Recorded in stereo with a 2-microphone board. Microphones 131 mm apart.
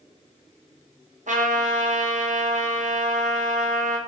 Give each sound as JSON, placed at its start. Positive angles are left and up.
{"t": 1.3, "sound": "a trumpet", "side_deg": -75, "distance_m": 0.6}